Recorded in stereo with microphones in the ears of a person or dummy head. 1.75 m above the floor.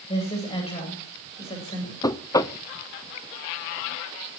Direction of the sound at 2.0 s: 20° left (ahead or behind).